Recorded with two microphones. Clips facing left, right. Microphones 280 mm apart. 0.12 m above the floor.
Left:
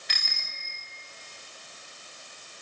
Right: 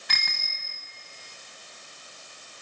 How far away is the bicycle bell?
About 8.5 m.